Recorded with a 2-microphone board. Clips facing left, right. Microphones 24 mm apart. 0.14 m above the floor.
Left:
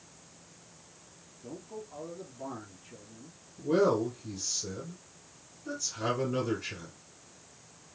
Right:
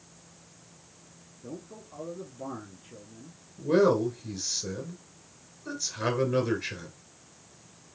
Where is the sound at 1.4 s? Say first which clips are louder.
Even; 20° right (ahead or behind), 3 m.